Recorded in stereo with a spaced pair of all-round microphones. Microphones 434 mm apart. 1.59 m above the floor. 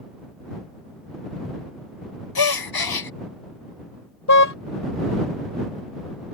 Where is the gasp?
55° left (ahead or behind).